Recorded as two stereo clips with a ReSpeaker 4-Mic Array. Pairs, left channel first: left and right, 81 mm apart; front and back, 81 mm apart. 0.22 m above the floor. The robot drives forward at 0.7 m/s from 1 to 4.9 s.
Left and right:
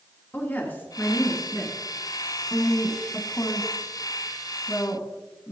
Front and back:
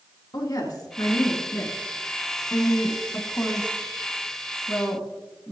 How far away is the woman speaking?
About 3 m.